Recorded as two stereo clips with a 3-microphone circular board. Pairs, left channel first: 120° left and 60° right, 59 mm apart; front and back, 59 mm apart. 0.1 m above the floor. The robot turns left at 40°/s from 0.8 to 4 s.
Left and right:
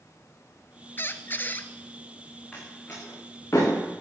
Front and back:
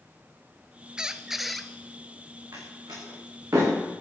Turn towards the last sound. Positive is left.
turn(degrees=135)